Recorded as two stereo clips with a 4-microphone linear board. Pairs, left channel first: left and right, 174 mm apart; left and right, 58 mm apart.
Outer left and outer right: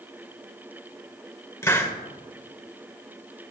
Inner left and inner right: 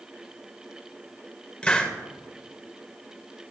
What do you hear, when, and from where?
1.6 s a hiss: 15° left (ahead or behind), 2.5 m